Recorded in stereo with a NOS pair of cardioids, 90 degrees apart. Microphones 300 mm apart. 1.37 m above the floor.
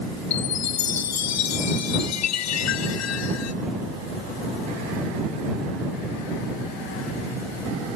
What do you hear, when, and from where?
0.3 s a chime: 60° left